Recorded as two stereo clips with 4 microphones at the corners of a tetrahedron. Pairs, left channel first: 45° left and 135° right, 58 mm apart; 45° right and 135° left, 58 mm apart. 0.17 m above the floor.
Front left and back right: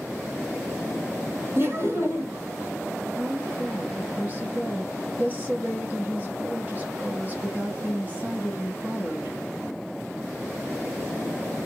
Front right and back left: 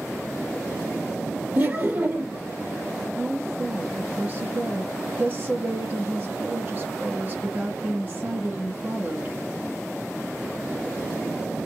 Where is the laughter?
170° right, 2.5 m.